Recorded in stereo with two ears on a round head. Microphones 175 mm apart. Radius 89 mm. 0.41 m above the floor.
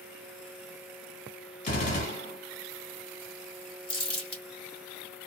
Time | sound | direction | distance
1.6 | a gunshot | 40° left (ahead or behind) | 1.6 m
3.9 | crumpling | 30° left (ahead or behind) | 2 m